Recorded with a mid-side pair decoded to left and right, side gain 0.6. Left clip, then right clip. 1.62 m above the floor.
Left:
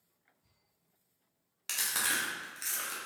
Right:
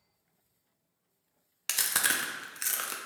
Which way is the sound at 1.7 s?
35° right.